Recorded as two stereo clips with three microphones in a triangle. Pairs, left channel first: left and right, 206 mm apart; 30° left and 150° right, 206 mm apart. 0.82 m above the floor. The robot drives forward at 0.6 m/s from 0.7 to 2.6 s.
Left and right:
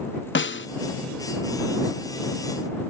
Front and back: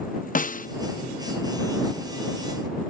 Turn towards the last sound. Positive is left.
turn(degrees=155)